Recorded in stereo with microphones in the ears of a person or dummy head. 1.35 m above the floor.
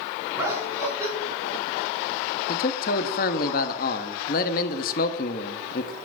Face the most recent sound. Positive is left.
turn(degrees=40)  # may be behind; listen again after turning